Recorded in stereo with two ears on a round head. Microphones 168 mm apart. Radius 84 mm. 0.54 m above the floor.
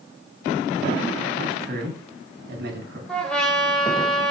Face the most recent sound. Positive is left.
turn(degrees=5)  # may be behind; listen again after turning